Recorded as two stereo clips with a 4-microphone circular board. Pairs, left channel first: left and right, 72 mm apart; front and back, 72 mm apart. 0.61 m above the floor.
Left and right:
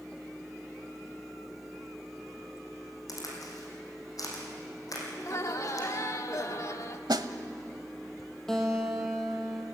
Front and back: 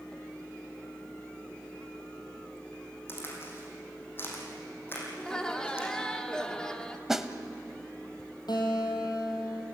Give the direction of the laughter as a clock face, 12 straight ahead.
9 o'clock.